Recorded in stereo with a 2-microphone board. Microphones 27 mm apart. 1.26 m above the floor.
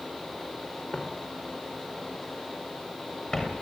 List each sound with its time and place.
0.9 s footsteps: 45° left (ahead or behind), 6 m; by 3.5 s 40° left (ahead or behind), 7.5 m